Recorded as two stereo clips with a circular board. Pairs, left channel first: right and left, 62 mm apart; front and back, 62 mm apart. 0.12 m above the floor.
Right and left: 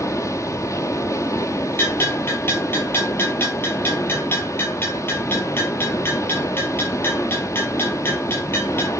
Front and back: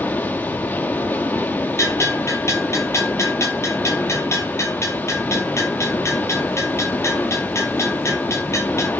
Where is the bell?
40° right, 4.5 m.